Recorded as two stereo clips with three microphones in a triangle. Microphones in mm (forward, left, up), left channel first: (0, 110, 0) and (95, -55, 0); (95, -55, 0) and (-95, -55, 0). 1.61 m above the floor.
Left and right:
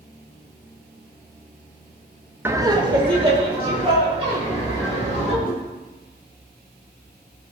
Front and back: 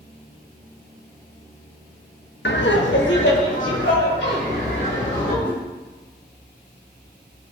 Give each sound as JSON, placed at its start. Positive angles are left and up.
{"t": 2.5, "sound": "laughter", "azimuth_deg": 20, "distance_m": 0.7}
{"t": 5.4, "sound": "a whoosh", "azimuth_deg": 80, "distance_m": 1.7}